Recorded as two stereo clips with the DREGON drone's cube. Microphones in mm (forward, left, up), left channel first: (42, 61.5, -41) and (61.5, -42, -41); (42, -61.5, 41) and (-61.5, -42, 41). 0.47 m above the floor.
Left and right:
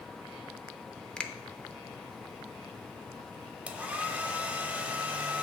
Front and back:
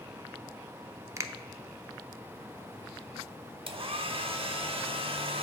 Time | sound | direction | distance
1.2 | a finger snap | 165° left | 0.5 m
3.7 | a hair dryer | 155° right | 0.7 m